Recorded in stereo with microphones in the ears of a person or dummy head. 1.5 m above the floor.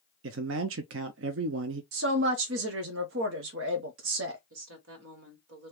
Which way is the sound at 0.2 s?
60° right (ahead or behind).